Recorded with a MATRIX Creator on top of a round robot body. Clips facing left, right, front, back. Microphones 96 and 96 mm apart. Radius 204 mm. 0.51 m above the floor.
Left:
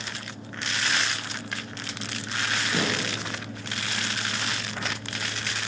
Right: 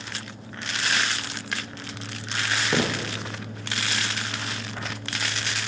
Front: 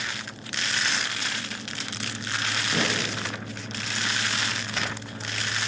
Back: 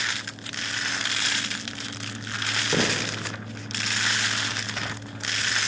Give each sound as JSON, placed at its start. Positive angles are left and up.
{"t": 2.7, "sound": "footsteps", "azimuth_deg": -120, "distance_m": 2.5}